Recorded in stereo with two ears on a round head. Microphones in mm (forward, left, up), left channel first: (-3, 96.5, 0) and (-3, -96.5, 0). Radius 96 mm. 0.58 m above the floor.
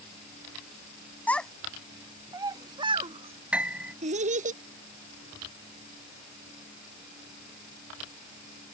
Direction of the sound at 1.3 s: 10° left (ahead or behind).